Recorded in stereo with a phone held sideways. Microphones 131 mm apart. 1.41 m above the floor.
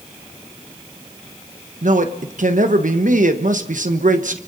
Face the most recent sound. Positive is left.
turn(degrees=-80)